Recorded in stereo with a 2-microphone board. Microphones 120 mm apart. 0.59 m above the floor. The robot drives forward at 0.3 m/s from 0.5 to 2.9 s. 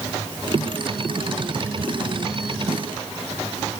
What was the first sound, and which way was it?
Only background noise.